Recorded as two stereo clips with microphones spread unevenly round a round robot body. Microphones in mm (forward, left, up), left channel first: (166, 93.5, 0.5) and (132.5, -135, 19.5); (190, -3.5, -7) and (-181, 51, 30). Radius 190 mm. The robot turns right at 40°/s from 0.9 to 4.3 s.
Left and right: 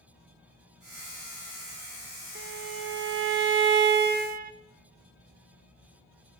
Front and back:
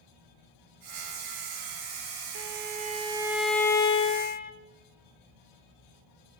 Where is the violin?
135° right, 0.8 m; by 4.5 s 60° right, 0.8 m.